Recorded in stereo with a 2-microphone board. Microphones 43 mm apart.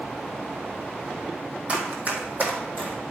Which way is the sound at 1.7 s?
30° right (ahead or behind).